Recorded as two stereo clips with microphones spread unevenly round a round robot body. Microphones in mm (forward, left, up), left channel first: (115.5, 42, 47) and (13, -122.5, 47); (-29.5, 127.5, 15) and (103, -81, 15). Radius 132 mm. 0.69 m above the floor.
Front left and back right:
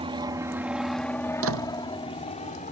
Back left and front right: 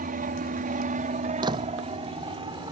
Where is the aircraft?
85° right; by 2.7 s 10° left.